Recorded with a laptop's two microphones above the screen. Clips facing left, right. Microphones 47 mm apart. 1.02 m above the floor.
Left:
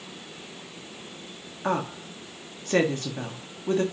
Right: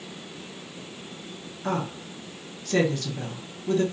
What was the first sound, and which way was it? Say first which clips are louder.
A woman speaking: left 2 dB; 30° left (ahead or behind).